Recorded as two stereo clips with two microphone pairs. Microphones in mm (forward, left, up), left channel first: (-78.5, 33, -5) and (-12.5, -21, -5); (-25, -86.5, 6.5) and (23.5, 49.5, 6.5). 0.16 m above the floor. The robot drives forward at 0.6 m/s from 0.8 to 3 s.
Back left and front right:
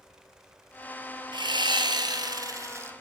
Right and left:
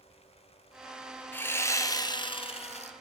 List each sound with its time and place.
1.3 s sawing: 35° right, 1.2 m; by 2.9 s 95° right, 0.7 m